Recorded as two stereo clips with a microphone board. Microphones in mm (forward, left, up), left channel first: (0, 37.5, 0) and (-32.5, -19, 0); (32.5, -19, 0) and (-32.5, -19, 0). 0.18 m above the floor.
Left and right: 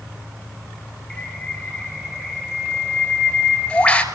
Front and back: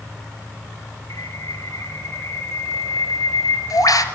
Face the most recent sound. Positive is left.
turn(degrees=-10)